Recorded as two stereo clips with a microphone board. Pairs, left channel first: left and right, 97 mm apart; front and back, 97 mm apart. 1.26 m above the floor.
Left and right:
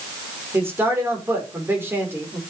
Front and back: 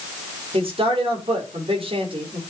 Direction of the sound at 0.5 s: 155° right.